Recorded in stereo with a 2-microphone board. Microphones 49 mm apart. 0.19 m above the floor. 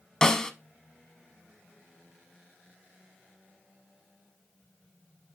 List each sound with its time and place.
0.2 s a snare drum: 15° left (ahead or behind), 0.7 m